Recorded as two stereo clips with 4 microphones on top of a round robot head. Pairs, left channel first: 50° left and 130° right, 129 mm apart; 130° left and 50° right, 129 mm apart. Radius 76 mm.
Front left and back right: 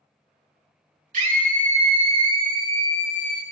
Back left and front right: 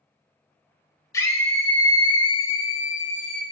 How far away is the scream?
About 1.9 m.